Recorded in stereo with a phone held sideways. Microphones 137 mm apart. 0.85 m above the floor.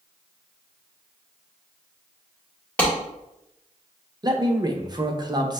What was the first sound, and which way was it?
A clap, 10° left (ahead or behind).